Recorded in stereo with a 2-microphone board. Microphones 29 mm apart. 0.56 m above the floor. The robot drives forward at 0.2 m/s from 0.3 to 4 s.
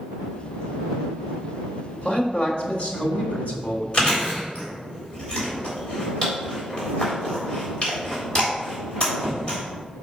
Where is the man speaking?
55° left (ahead or behind), 1.7 m; by 3.8 s 50° left (ahead or behind), 1.8 m.